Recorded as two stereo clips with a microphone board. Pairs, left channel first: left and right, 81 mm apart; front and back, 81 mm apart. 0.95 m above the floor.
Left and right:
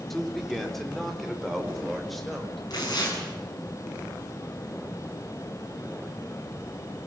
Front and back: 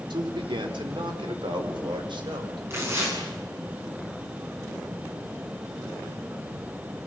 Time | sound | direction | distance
0.1 | a man speaking | 175° left | 3 m
2.7 | tearing paper | 125° left | 8 m